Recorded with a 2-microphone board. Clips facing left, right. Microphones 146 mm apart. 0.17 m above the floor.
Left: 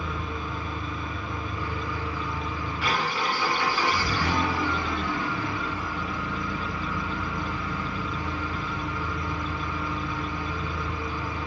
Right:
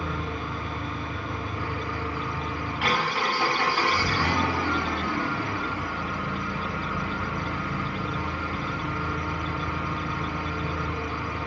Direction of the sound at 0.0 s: 75° right (ahead or behind).